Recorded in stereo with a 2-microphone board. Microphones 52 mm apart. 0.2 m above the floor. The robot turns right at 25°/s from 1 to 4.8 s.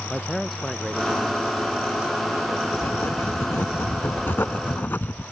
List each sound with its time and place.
0.1 s a man speaking: 175° left; by 2.6 s 145° right
2.7 s writing: 75° left; by 5.2 s 130° left